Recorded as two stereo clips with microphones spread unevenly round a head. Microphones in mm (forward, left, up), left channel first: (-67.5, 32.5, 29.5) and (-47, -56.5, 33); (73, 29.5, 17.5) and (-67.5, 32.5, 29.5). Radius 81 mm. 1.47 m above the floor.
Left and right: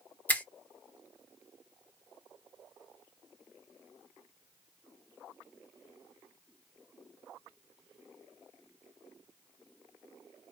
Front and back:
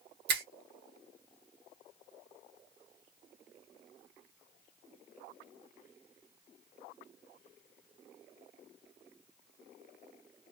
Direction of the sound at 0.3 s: 175° left.